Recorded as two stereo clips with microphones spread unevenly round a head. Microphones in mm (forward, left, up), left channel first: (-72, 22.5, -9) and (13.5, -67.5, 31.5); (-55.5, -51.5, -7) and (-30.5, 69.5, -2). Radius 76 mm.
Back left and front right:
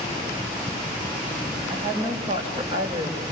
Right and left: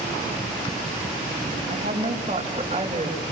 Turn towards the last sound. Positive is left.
turn(degrees=15)